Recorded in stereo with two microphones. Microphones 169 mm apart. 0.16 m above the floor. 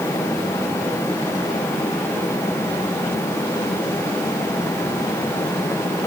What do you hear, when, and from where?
Only background noise.